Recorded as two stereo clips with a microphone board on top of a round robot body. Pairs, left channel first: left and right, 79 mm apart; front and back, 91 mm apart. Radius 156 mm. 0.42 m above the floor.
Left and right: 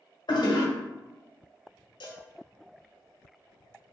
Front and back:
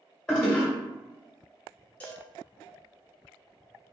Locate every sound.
0.3 s a toilet flushing: 80° left, 1.5 m
2.0 s a cowbell: 75° left, 1.1 m